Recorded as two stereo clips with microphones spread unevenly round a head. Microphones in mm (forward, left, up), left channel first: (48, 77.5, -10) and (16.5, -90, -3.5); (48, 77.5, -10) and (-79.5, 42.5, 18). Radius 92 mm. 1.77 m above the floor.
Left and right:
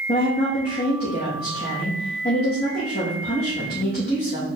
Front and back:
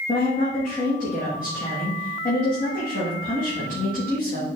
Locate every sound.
0.1 s a woman speaking: 40° left, 3.5 m